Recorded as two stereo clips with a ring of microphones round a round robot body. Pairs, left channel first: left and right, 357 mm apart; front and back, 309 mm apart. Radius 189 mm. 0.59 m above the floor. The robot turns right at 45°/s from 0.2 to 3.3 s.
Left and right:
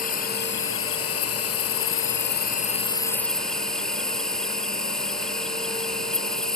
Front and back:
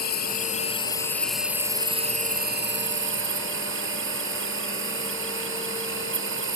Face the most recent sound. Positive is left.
turn(degrees=180)